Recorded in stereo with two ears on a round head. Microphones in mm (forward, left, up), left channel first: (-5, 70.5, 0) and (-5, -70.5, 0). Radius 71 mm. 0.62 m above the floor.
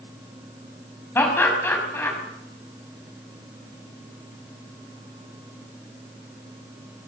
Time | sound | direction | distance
1.1 | laughter | 15° left (ahead or behind) | 5.5 m